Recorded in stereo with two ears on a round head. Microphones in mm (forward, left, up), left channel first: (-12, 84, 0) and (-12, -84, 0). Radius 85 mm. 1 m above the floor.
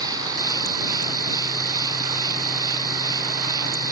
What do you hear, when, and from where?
0.0 s an insect: 20° right (ahead or behind)